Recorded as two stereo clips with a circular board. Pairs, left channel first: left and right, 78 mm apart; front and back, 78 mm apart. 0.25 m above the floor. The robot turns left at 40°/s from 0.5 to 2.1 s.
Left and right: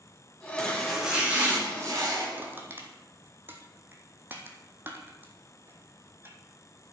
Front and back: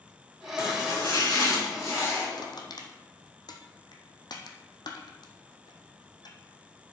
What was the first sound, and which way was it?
Chopping, 10° left.